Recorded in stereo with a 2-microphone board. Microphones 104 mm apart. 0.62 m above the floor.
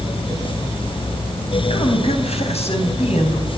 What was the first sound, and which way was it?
A woman speaking, 75° left (ahead or behind).